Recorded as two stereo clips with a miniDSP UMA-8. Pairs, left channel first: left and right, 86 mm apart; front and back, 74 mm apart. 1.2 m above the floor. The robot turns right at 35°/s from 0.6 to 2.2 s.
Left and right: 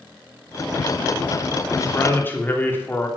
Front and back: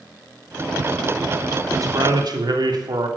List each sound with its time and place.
1.7 s a man speaking: 140° left, 3 m; by 3.1 s 155° left, 3 m